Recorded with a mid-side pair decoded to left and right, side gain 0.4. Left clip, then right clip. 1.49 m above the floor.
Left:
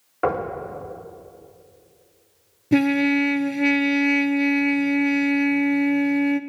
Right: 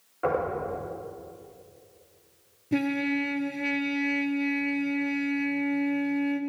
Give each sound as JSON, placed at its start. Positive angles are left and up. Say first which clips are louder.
{"t": 0.2, "sound": "knocking", "louder": "left 3 dB", "azimuth_deg": 70, "distance_m": 4.0}
{"t": 2.7, "sound": "a trumpet", "louder": "left 8 dB", "azimuth_deg": 60, "distance_m": 0.6}